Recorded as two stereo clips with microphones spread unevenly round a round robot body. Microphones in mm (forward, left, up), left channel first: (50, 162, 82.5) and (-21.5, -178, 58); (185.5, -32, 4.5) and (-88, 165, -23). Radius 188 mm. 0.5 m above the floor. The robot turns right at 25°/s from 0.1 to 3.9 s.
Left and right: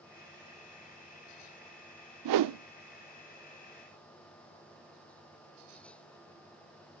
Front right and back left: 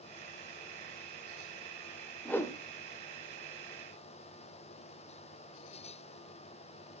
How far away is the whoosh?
About 0.6 m.